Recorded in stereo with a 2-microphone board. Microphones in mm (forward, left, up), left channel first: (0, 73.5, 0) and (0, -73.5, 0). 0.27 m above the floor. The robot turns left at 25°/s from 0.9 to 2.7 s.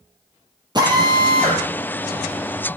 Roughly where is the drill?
Right.